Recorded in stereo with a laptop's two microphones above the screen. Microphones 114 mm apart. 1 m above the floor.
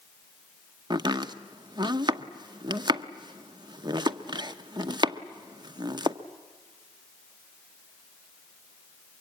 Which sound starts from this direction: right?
Chopping, at 0.9 s.